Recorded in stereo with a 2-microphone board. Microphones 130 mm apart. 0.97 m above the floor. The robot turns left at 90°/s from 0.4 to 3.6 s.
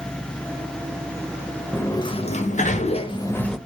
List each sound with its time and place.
1.7 s a sliding door: 165° left, 0.6 m; by 3.6 s straight ahead, 0.6 m